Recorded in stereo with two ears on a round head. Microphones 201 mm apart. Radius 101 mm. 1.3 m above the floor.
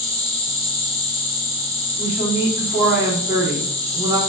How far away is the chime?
I don't hear a chime.